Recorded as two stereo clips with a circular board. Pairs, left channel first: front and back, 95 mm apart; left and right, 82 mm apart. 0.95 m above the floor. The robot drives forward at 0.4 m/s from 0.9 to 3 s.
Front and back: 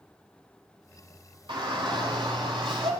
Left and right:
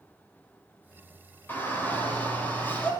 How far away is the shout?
About 4 m.